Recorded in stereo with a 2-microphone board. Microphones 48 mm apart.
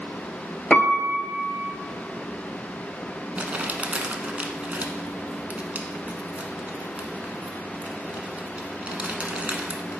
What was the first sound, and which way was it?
A piano, 30° left (ahead or behind).